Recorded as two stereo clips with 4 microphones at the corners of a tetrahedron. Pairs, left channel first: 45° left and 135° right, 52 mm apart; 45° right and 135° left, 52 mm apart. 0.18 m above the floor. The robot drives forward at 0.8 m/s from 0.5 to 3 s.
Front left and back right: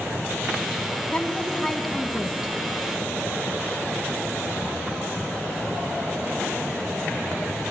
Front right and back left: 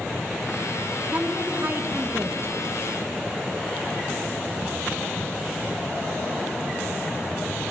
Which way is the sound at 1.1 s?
95° left.